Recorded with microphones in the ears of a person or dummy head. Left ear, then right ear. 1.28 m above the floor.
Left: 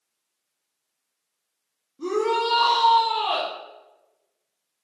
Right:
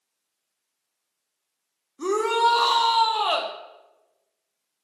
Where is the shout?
60° right (ahead or behind), 0.8 m.